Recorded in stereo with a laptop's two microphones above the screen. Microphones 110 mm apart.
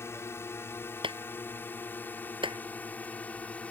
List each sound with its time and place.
0.0 s a drone: 25° left (ahead or behind); by 3.7 s 15° left (ahead or behind)
1.0 s a clap: 55° right (ahead or behind)